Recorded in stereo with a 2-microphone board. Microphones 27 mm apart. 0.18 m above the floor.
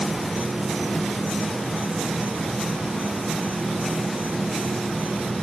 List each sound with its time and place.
0.0 s an insect: 65° right (ahead or behind)